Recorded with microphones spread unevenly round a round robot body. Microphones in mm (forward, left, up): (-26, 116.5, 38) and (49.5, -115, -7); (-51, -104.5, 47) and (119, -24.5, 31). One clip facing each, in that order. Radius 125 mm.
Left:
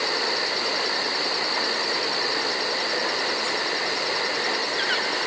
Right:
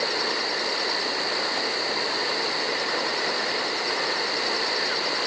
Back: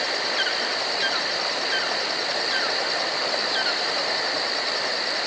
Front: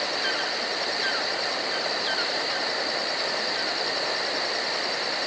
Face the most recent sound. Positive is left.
No sound to turn to.